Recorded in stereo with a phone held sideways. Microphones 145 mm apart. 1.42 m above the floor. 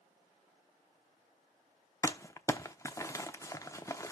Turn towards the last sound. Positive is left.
turn(degrees=20)  # may be behind; listen again after turning